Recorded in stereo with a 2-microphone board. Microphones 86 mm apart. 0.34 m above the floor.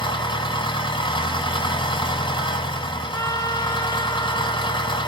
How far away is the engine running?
About 1.8 m.